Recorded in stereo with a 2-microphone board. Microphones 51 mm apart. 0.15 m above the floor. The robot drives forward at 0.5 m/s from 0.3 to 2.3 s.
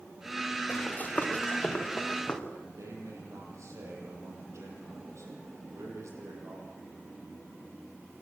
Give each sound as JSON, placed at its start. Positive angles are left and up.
{"t": 0.7, "sound": "running footsteps", "side_deg": 30, "distance_m": 4.0}
{"t": 2.5, "sound": "a man speaking", "side_deg": -70, "distance_m": 6.5}